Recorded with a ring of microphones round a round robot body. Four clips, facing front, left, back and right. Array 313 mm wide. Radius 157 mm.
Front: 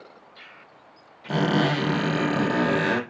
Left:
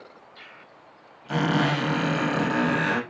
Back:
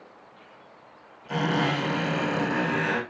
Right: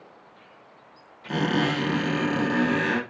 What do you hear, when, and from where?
1.3 s a squeak: 20° right, 4 m